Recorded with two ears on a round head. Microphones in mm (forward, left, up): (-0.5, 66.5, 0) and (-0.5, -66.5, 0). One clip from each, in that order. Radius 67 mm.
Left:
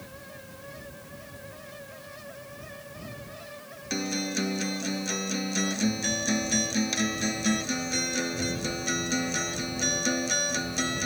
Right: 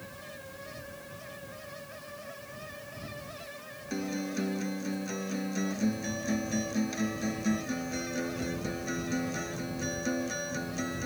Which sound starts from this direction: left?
A guitar, at 3.9 s.